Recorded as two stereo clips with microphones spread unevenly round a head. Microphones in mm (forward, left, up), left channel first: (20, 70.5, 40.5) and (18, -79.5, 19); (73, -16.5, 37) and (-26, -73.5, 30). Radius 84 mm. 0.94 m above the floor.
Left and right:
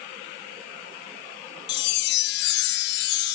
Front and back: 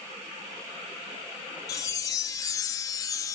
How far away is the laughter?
No laughter in this recording.